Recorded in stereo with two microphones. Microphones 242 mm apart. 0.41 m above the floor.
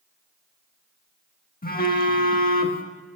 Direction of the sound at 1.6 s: 40° left (ahead or behind).